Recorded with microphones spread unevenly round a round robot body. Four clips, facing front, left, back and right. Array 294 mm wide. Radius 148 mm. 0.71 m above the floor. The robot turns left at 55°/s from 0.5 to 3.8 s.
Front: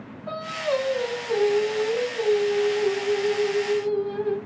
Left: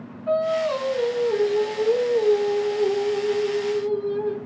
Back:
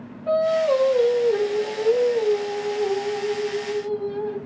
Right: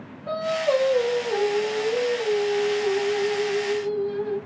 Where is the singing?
145° right, 2.0 m; by 4.4 s 35° left, 2.0 m.